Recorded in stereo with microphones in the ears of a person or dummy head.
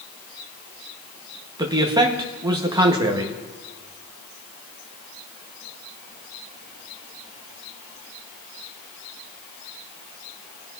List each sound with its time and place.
1.6 s a man speaking: 15° right (ahead or behind), 1.1 m